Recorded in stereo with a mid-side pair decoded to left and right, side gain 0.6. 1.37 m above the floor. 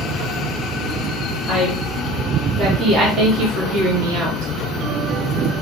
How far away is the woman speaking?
About 3.5 m.